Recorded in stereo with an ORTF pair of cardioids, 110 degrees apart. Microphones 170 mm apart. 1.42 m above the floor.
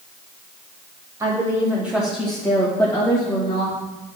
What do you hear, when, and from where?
1.2 s a woman speaking: 20° right, 2 m; by 3.8 s 30° left, 2 m